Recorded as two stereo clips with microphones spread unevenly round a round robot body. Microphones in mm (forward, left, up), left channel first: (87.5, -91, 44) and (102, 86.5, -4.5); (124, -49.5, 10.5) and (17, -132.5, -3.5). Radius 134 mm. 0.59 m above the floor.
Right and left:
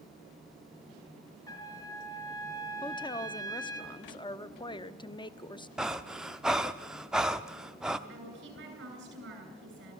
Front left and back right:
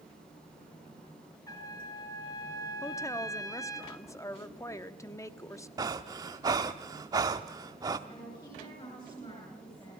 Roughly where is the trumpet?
Ahead right.